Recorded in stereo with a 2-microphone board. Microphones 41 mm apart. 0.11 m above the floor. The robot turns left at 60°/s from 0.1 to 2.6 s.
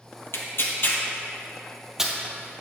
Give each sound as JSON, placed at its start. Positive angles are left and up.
{"t": 0.3, "sound": "tearing paper", "side_deg": 65, "distance_m": 1.6}